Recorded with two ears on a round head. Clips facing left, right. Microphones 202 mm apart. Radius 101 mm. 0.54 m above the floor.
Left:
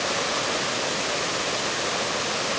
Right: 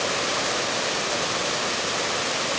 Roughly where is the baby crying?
No baby crying in this recording.